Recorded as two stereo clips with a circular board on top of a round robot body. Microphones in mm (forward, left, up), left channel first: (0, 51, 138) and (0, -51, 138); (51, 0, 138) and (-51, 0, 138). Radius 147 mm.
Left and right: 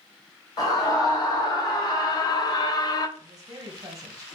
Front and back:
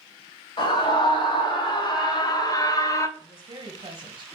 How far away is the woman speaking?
About 1.2 m.